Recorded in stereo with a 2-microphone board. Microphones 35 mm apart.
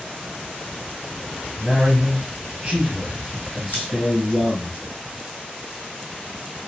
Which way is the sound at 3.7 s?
60° left (ahead or behind).